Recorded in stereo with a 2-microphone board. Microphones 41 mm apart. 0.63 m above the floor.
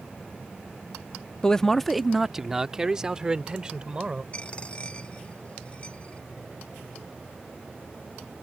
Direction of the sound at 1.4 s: 20° left (ahead or behind).